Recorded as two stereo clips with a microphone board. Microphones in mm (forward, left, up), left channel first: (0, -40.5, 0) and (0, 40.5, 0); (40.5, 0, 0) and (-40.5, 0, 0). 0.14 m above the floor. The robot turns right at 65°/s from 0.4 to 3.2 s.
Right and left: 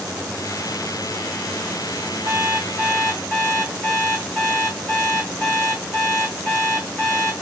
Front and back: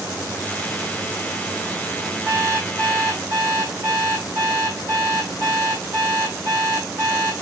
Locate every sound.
2.2 s an alarm clock: 120° left, 4 m; by 7.3 s 175° right, 4 m